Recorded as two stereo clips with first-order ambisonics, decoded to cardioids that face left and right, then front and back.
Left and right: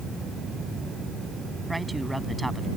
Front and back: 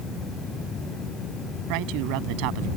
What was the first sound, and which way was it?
A man speaking, 175° right.